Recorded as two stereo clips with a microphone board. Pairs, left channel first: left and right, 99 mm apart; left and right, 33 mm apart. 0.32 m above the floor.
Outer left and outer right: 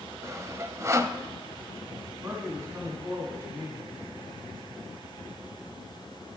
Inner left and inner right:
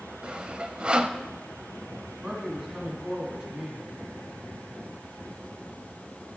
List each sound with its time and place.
0.2 s sawing: 30° right (ahead or behind), 0.7 m
2.2 s a man speaking: 25° right (ahead or behind), 3.5 m